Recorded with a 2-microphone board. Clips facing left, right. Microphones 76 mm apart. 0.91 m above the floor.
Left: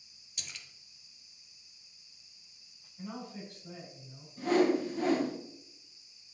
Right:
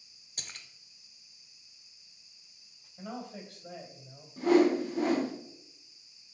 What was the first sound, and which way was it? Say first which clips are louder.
A splash: right 1 dB; 40° right (ahead or behind).